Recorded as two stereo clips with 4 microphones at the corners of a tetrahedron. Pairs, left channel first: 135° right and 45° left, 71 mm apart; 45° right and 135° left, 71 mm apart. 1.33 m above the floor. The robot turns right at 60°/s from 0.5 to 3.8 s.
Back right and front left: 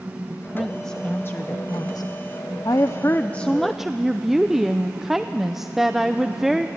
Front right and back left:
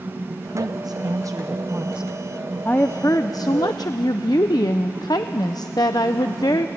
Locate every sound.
0.3 s a woman speaking: 120° left, 0.7 m; by 6.7 s 40° right, 0.7 m